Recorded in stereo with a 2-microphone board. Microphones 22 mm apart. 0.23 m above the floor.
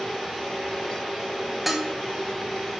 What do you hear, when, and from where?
1.7 s dishes clattering: 10° right (ahead or behind), 0.9 m